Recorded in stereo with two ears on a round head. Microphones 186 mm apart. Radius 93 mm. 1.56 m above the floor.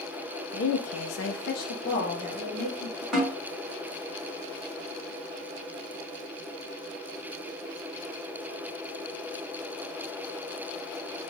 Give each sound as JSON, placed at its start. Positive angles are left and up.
{"t": 0.5, "sound": "a woman speaking", "side_deg": 55, "distance_m": 0.7}
{"t": 3.1, "sound": "a snare drum", "side_deg": 0, "distance_m": 2.0}